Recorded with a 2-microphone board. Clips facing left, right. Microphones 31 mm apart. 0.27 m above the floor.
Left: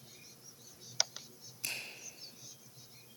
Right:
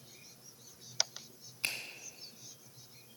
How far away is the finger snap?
About 2 m.